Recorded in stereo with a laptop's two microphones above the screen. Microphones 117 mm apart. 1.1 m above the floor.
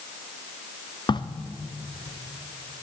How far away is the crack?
About 0.7 m.